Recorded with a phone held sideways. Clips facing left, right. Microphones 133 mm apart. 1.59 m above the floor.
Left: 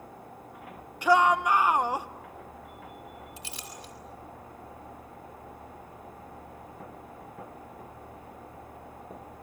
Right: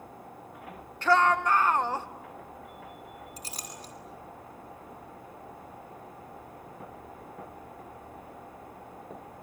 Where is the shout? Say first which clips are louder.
Left 1 dB; 10° left (ahead or behind), 1.3 m.